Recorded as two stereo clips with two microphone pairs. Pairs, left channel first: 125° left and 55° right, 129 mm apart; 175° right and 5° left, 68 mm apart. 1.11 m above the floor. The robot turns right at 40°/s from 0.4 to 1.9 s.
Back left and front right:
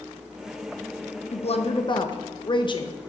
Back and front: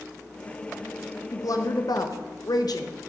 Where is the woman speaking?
155° left, 0.8 m; by 2.9 s 175° left, 0.8 m.